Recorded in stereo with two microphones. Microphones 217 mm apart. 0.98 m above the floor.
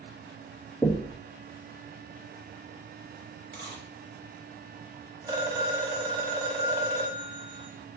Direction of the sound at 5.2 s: 15° right (ahead or behind).